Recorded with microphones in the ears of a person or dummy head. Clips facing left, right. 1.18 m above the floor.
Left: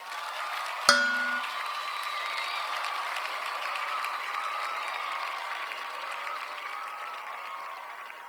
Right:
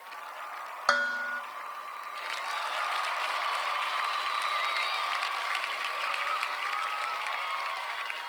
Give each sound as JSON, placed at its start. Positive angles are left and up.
{"t": 0.9, "sound": "dishes clattering", "side_deg": 45, "distance_m": 0.5}